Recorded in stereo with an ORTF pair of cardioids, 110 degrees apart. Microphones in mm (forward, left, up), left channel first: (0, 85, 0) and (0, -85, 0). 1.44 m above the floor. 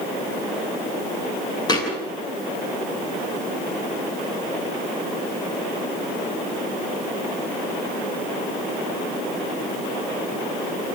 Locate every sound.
1.7 s a thud: 20° left, 8.5 m